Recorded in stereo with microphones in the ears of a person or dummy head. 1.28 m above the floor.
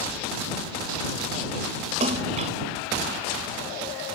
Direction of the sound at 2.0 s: 40° right (ahead or behind).